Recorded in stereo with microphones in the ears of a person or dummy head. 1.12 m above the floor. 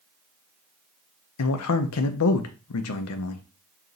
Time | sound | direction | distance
1.4 | a man speaking | 75° left (ahead or behind) | 0.5 m